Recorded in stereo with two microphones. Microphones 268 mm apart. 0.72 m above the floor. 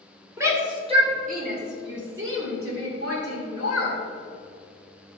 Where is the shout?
10° right (ahead or behind), 2 m; by 4.0 s 75° right (ahead or behind), 3.5 m.